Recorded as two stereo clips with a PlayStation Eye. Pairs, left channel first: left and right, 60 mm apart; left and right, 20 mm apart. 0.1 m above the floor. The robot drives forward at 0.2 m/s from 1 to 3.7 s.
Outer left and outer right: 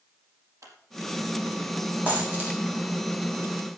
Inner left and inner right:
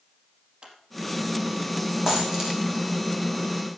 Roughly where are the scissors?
Right.